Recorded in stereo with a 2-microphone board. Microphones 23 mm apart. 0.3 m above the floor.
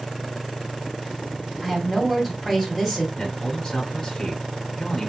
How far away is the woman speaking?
About 2.0 m.